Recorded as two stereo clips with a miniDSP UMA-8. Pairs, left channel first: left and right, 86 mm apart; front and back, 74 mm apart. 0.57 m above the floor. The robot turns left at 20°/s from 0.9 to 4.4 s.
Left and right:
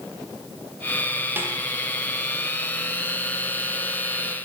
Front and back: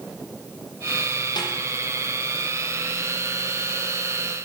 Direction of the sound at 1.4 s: 25° right.